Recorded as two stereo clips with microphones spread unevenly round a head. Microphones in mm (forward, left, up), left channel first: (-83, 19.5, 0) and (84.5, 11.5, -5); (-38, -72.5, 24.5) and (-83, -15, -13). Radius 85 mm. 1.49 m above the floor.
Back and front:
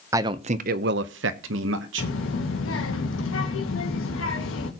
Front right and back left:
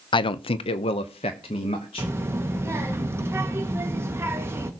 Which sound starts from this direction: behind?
A child speaking, at 2.0 s.